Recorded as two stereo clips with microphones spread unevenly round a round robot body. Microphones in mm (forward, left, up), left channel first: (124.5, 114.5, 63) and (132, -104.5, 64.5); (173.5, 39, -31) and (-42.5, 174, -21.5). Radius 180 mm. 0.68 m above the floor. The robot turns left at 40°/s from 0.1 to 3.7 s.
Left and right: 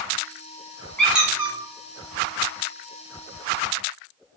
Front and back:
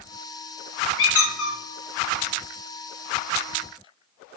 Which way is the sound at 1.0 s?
5° left.